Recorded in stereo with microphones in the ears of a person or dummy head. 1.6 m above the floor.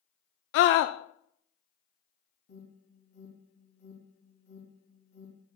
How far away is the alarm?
About 2.5 m.